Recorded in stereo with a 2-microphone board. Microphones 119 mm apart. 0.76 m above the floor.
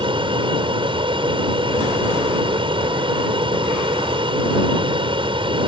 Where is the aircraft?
45° right (ahead or behind).